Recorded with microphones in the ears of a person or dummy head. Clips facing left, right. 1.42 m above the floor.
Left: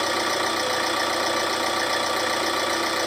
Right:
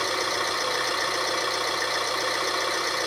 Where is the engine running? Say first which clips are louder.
Left 4 dB; 75° left (ahead or behind), 4 m.